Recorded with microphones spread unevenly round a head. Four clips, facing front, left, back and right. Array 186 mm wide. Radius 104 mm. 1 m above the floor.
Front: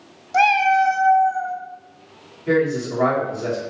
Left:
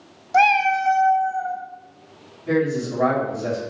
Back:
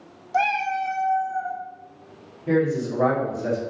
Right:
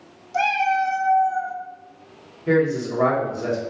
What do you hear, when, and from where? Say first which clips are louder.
0.3 s a cat meowing: left 3 dB, front 7 dB; 55° left, 0.6 m; by 1.6 s 50° right, 0.8 m
2.5 s a man speaking: right 2 dB, front 2 dB; 50° right, 1.8 m